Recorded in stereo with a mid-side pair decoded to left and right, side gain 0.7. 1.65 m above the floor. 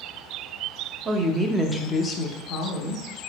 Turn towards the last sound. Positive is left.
turn(degrees=65)